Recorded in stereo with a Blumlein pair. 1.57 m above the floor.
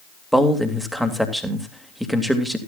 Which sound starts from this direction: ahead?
A man speaking, at 0.3 s.